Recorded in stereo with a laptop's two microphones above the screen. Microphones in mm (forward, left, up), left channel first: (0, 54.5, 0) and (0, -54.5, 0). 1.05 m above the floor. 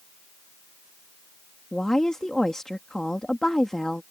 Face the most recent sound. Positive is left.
turn(degrees=5)  # may be behind; listen again after turning